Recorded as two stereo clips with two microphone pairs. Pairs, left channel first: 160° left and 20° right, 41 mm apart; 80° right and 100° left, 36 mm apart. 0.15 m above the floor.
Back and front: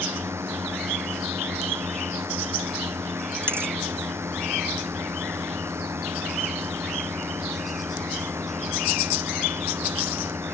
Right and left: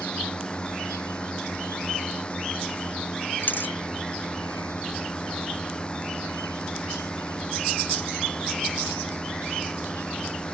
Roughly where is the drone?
Ahead.